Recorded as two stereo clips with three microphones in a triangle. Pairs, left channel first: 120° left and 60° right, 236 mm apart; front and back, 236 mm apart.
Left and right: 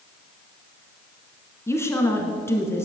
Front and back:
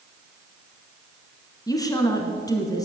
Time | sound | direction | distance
1.7 | a woman speaking | 55° left | 1.7 m